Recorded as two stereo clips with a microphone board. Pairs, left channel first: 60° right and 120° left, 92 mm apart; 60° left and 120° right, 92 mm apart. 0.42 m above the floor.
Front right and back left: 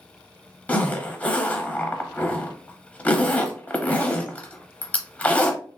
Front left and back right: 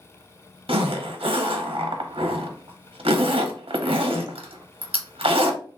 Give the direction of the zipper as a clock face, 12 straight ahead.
4 o'clock.